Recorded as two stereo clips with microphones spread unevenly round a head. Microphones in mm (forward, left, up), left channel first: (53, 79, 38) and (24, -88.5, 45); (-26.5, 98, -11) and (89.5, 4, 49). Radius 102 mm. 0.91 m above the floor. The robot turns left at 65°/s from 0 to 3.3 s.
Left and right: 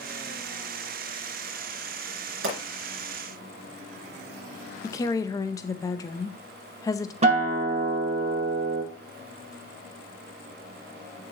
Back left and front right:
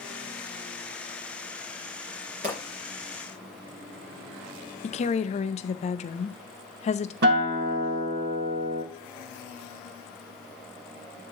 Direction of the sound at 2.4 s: 90° right.